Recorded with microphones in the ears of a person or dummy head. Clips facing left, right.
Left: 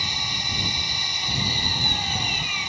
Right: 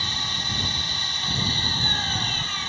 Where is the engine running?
10° left (ahead or behind).